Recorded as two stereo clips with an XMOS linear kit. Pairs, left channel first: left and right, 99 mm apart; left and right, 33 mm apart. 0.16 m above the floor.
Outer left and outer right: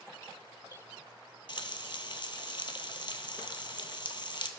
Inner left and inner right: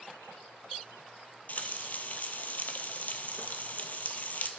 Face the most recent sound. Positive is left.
turn(degrees=55)  # may be behind; listen again after turning